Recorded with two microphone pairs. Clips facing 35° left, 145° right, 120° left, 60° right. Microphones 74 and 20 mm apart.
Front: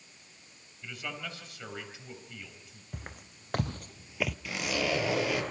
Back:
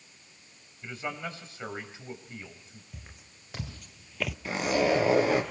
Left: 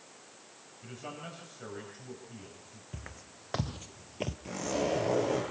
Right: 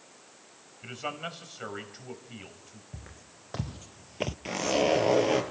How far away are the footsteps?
About 1.9 m.